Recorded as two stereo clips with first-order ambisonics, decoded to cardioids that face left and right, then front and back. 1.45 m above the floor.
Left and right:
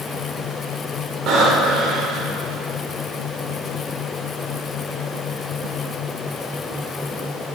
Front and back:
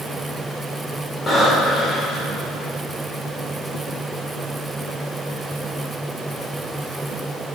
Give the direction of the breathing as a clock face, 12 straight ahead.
2 o'clock.